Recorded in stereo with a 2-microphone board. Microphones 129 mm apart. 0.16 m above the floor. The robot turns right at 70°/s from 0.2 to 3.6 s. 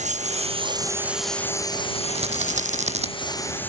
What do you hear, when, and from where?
0.0 s a lawn mower: 75° right (ahead or behind); by 3.7 s 15° left (ahead or behind)
2.1 s a rattle: 125° right; by 3.1 s 60° right